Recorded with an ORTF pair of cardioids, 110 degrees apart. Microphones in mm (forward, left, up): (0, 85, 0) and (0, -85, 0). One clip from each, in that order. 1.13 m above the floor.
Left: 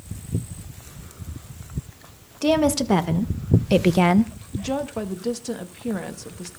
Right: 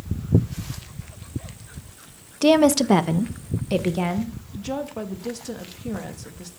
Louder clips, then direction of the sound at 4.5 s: Left 3 dB; 20° left.